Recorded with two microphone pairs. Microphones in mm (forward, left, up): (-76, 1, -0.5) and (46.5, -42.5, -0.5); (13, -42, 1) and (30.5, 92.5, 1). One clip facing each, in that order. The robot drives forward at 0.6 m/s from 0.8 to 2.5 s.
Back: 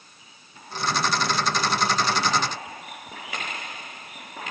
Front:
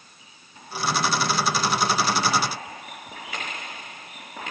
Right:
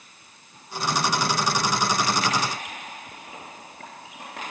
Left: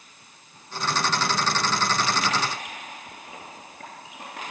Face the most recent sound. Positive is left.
No sound to turn to.